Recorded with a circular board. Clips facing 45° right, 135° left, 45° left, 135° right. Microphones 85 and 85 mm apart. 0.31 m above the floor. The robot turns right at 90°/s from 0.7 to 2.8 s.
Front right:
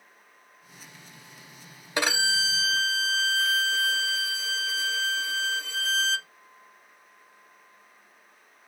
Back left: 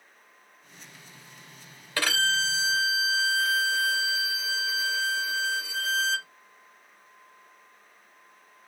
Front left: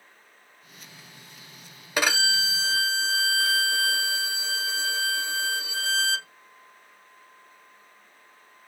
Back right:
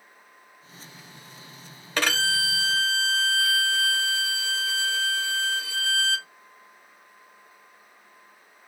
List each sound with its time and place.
2.0 s a violin: 20° right, 0.5 m; by 6.3 s 55° left, 0.5 m